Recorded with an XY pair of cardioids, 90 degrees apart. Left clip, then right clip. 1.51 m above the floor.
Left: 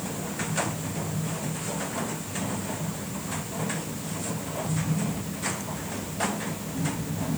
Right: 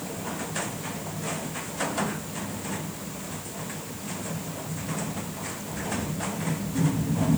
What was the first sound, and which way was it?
Only background noise.